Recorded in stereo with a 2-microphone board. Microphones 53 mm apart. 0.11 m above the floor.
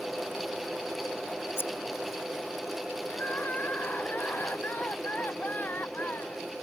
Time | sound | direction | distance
1.6 | scissors | 55° left (ahead or behind) | ?
3.1 | crying | 35° left (ahead or behind) | ?